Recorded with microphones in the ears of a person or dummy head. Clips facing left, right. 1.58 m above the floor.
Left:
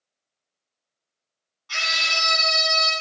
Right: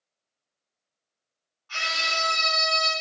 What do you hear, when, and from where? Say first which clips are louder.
1.7 s a scream: even; 65° left (ahead or behind), 1.9 m